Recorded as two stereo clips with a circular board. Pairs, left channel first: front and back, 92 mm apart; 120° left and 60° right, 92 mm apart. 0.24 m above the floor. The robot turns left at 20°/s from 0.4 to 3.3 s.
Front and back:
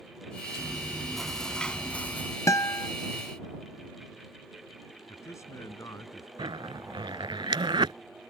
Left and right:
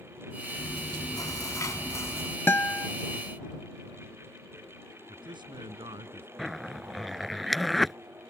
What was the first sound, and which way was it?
Chewing, 100° left.